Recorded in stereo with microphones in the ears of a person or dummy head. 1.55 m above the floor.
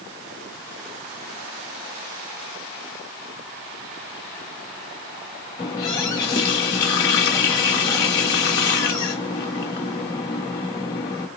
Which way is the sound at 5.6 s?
20° left (ahead or behind).